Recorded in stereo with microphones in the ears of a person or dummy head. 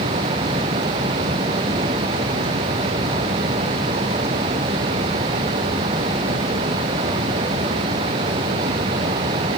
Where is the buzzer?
No buzzer in this recording.